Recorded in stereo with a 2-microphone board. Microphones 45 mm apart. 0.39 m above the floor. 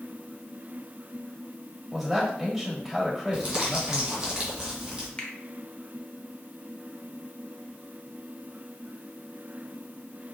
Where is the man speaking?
5° right (ahead or behind), 1.4 m.